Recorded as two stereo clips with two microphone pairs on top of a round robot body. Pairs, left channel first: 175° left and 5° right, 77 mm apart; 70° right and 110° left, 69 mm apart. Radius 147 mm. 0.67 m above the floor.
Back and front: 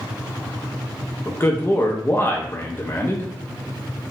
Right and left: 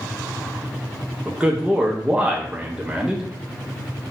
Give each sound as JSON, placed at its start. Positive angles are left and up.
{"t": 1.2, "sound": "a man speaking", "azimuth_deg": 160, "distance_m": 0.6}